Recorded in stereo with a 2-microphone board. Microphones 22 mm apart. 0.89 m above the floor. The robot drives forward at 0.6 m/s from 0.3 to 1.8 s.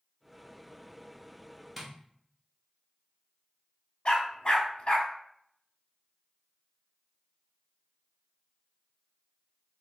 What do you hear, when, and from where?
1.8 s tapping: 10° right (ahead or behind), 0.7 m
4.0 s a dog barking: 50° left (ahead or behind), 0.6 m